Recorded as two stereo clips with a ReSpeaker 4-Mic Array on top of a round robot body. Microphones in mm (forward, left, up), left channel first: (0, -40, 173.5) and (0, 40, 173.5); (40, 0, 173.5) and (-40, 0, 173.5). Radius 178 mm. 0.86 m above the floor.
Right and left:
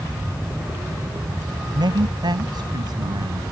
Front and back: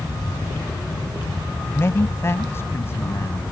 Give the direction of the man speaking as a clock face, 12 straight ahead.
10 o'clock.